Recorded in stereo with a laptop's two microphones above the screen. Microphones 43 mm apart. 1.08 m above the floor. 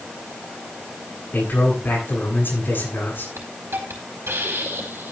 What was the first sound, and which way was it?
A man speaking, 55° left (ahead or behind).